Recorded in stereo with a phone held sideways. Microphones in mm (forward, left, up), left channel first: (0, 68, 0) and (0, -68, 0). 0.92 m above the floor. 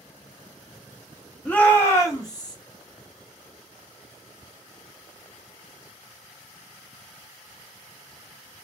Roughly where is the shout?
Centre.